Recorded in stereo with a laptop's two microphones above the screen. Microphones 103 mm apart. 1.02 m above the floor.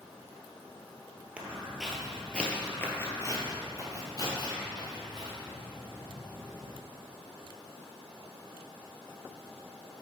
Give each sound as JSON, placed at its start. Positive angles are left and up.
{"t": 1.4, "sound": "footsteps", "side_deg": -10, "distance_m": 1.2}